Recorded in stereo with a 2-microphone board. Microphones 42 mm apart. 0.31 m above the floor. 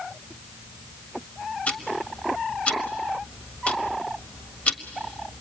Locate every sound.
1.7 s ticking: 30° left (ahead or behind), 1.4 m